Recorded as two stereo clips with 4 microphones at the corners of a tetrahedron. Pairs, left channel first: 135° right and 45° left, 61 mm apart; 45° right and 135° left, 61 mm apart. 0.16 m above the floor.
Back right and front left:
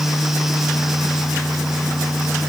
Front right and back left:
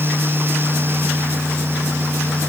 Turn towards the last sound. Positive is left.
No sound to turn to.